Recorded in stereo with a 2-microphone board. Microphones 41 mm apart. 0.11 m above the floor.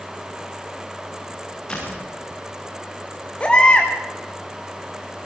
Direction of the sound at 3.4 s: 25° left (ahead or behind).